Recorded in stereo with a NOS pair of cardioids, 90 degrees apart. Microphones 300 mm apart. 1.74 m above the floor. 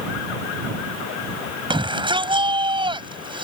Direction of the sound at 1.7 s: 15° right.